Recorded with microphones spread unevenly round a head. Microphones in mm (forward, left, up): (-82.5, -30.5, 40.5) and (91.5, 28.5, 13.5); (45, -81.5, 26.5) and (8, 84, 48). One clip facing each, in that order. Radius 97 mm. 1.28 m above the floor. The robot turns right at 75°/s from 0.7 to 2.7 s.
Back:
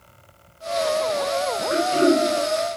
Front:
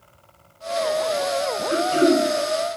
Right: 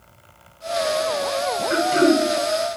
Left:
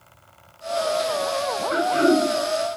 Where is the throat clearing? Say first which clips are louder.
Front 1 dB, right 2 dB; 85° right, 1.2 m; by 2.2 s 45° right, 1.2 m.